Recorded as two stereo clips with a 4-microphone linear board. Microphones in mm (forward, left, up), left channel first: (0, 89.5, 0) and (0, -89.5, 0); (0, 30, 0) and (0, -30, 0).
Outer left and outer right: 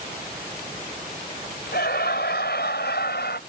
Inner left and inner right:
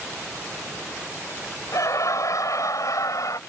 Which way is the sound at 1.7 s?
70° left (ahead or behind).